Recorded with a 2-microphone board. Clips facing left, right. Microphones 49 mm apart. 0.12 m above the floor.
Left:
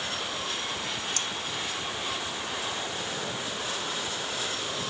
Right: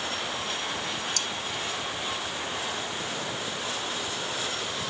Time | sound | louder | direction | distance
1.2 | cutlery clinking | right 1 dB | 30° left (ahead or behind) | ?